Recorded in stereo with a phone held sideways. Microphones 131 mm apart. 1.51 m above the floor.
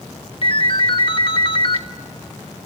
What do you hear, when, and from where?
0.4 s a ringtone: 45° left (ahead or behind), 1.2 m